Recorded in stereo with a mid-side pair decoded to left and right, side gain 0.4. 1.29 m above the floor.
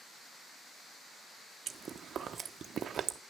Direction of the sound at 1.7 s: 55° right.